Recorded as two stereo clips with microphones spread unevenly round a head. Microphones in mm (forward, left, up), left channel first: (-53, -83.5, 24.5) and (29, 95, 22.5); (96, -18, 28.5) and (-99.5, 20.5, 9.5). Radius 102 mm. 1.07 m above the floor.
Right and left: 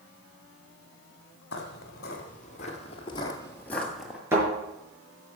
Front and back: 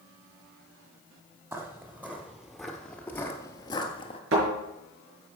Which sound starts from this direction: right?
Footsteps, at 1.5 s.